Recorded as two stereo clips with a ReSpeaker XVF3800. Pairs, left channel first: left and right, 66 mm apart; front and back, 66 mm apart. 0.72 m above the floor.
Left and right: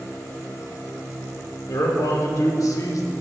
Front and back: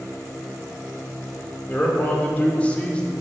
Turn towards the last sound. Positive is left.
turn(degrees=75)